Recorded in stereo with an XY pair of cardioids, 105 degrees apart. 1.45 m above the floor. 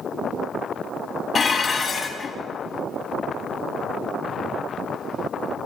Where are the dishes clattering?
40° left, 1.6 m.